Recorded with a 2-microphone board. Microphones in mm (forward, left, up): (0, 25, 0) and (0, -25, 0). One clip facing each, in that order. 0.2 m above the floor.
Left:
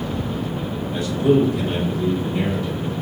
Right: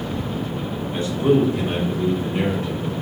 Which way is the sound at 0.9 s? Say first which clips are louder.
Left 1 dB; 40° right (ahead or behind).